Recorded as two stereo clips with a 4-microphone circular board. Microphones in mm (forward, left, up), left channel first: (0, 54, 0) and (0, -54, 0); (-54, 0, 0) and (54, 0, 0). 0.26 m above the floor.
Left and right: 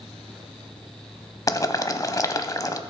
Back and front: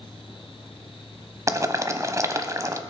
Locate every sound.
1.5 s boiling: 50° left, 0.8 m